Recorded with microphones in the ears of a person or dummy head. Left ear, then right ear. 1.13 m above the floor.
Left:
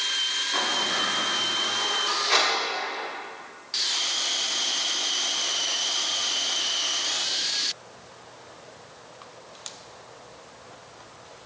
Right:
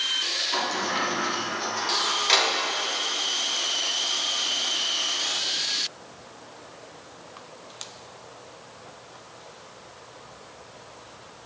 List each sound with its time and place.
0.5 s a sliding door: 40° right (ahead or behind), 3 m